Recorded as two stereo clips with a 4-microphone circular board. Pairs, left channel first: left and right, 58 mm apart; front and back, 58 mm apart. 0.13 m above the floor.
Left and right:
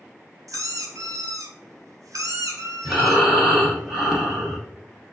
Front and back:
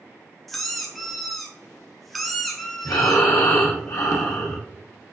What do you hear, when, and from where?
0.5 s a squeak: 85° right, 0.7 m
2.9 s breathing: 10° right, 0.9 m